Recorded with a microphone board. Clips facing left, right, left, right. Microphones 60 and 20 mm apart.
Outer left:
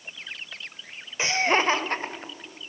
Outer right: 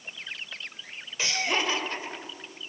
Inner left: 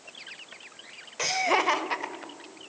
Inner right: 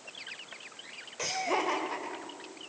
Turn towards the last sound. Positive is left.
turn(degrees=55)  # may be behind; listen again after turning